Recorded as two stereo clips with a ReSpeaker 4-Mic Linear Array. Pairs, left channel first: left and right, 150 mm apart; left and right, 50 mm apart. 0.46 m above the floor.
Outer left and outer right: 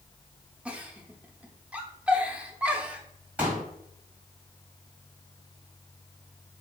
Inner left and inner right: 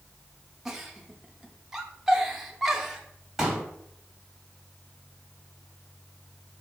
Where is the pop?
10° right (ahead or behind), 1.8 m.